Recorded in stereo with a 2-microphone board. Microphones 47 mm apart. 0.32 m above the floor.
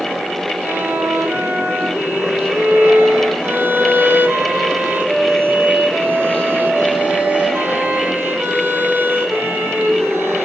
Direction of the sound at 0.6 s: 50° right (ahead or behind).